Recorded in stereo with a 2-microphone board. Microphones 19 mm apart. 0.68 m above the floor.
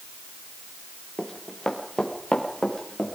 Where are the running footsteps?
35° left (ahead or behind), 4.5 m.